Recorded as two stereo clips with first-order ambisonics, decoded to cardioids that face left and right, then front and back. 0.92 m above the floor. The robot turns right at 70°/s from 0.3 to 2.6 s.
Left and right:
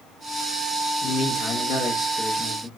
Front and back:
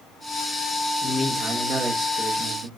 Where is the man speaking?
65° left, 0.8 m; by 2.7 s 175° left, 0.8 m.